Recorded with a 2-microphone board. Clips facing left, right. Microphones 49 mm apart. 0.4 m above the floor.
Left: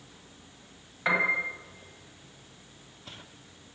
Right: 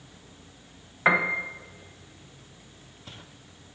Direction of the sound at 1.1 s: 35° right (ahead or behind).